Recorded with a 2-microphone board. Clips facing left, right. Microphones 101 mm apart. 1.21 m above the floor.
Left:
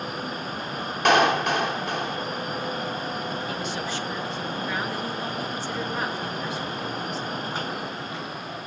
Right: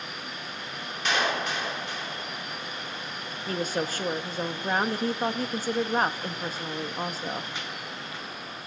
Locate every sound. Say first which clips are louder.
1.1 s a clap: left 8 dB; 60° left (ahead or behind), 2.5 m
3.5 s a woman speaking: right 1 dB; 45° right (ahead or behind), 1.6 m